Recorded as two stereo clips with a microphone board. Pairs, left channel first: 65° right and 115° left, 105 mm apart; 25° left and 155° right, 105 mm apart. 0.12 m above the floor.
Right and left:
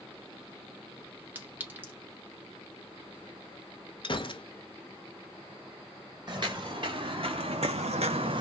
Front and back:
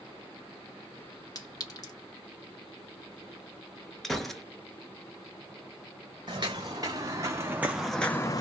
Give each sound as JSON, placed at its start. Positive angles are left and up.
{"t": 1.4, "sound": "a clink", "azimuth_deg": 50, "distance_m": 1.1}
{"t": 4.0, "sound": "a gunshot", "azimuth_deg": -65, "distance_m": 0.6}
{"t": 6.3, "sound": "footsteps", "azimuth_deg": 160, "distance_m": 1.3}